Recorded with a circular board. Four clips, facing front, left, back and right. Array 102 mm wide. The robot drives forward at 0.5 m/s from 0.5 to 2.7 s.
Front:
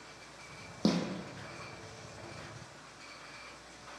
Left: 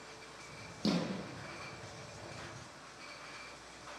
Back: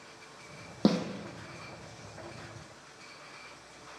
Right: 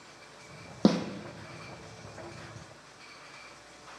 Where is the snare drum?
115° right, 2 m.